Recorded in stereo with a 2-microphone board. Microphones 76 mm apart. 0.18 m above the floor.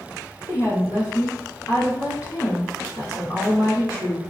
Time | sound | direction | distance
0.4 | a woman speaking | 40° left (ahead or behind) | 1.8 m